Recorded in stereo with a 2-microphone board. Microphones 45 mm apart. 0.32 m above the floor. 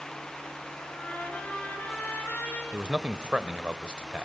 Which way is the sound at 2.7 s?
25° right (ahead or behind).